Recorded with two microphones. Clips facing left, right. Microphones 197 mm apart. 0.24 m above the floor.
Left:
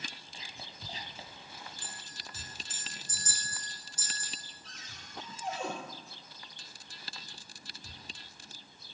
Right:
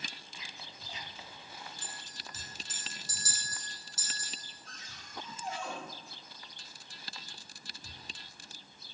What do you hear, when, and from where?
0.3 s whispering: 35° left (ahead or behind), 1.4 m
1.8 s a clink: 85° right, 6.5 m
4.6 s a cupboard door: 70° left (ahead or behind), 4 m